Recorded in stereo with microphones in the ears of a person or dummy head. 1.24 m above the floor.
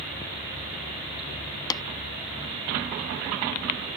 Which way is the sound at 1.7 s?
20° left (ahead or behind).